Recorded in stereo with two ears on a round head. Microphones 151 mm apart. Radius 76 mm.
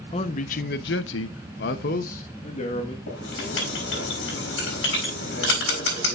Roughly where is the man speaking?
Left.